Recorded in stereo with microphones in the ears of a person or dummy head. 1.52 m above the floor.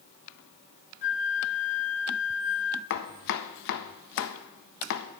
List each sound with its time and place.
1.0 s a flute: 40° left (ahead or behind), 0.7 m
2.9 s chopping: 50° left (ahead or behind), 0.6 m